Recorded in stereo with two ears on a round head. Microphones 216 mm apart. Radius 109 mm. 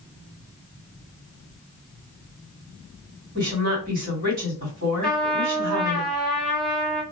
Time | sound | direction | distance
3.4 | a woman speaking | 35° right (ahead or behind) | 1.4 m
5.0 | a trumpet | 5° left (ahead or behind) | 0.7 m